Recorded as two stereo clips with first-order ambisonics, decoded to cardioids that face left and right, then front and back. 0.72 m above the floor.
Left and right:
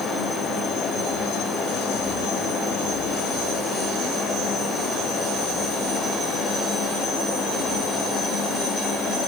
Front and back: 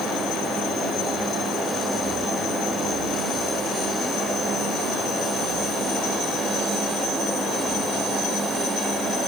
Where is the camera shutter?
I don't hear a camera shutter.